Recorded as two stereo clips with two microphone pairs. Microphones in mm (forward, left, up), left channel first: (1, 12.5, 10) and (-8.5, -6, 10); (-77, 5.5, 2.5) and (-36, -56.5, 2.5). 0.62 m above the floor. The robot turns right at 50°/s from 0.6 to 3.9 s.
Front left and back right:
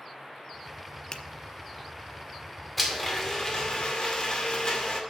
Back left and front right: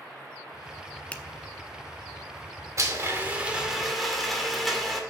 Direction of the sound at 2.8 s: 20° right.